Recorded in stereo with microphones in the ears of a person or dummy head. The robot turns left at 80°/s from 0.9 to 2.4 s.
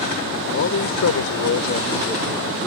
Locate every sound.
0.5 s a man speaking: 120° left; by 2.7 s straight ahead